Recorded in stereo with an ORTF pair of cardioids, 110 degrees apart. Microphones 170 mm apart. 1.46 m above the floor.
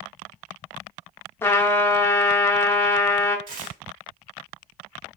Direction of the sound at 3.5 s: 55° right.